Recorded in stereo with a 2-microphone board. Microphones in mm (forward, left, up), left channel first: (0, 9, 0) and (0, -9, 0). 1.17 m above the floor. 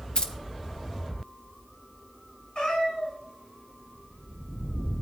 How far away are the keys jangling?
About 0.9 m.